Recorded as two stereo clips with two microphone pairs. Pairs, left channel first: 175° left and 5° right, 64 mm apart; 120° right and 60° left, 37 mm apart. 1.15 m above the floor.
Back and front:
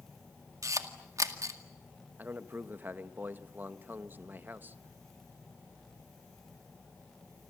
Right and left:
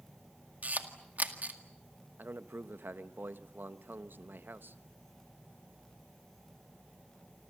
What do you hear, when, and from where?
0.6 s a camera shutter: 25° left, 2.0 m
2.2 s a man speaking: 55° left, 1.2 m